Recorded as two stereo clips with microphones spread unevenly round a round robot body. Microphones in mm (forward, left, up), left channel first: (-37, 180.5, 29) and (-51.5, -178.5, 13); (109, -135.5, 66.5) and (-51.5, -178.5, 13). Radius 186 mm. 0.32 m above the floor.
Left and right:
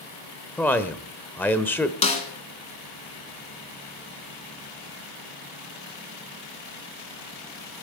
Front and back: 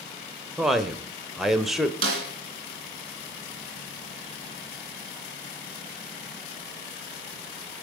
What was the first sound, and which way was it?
A man speaking, 170° left.